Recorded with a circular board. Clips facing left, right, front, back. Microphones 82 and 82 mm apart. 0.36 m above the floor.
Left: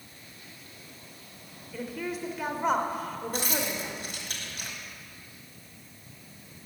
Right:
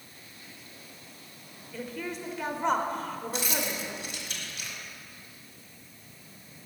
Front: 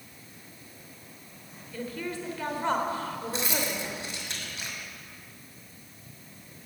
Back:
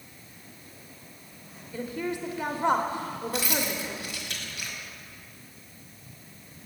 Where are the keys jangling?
60° left, 1.4 m.